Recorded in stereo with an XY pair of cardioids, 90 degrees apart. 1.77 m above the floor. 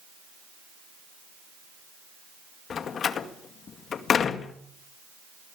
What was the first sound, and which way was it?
A door slam, 65° left.